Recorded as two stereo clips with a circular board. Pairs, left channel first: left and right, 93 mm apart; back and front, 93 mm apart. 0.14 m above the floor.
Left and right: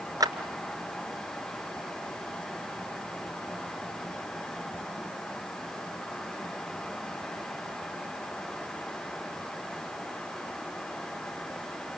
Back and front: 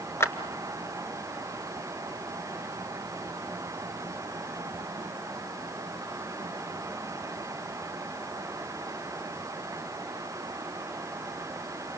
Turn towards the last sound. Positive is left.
turn(degrees=-125)